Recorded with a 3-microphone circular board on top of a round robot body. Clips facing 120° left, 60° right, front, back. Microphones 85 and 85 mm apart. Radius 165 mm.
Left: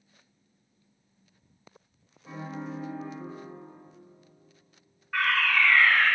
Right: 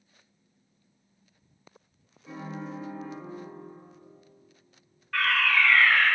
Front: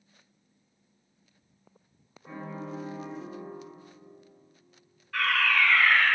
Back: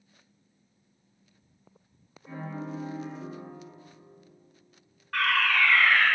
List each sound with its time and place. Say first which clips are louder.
2.2 s a piano: left 1 dB, back 1 dB; 70° left, 3.5 m
5.1 s a fire alarm: even, back 1 dB; 170° right, 3 m